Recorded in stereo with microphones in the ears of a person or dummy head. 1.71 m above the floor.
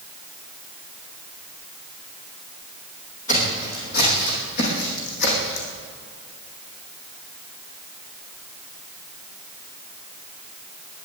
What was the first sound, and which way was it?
Footsteps, 40° left (ahead or behind).